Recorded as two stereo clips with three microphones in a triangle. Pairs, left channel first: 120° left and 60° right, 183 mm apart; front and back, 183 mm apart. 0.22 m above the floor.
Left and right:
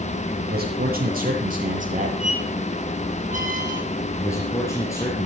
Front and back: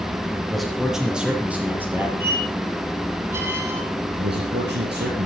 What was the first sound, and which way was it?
A man speaking, 90° right.